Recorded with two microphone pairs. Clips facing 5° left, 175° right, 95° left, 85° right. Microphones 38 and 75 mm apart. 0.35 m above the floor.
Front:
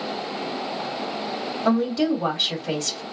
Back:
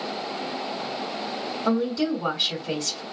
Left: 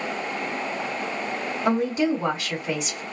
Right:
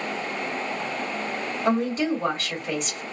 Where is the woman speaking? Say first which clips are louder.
Front 3 dB, left 1 dB; 15° left, 1.9 m.